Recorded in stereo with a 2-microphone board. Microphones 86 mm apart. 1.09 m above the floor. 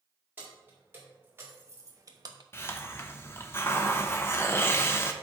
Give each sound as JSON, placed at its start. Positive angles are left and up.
{"t": 0.4, "sound": "keys jangling", "side_deg": -20, "distance_m": 3.5}
{"t": 2.5, "sound": "a hiss", "side_deg": 30, "distance_m": 0.9}